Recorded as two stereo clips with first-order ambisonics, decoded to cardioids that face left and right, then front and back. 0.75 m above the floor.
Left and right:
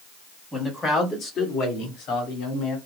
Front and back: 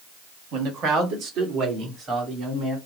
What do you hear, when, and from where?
0.5 s a man speaking: straight behind, 1.5 m; by 2.8 s 110° left, 2.5 m